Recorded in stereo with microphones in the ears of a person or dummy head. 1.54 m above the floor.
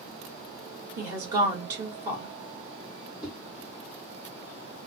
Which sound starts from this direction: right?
A woman speaking, at 1.0 s.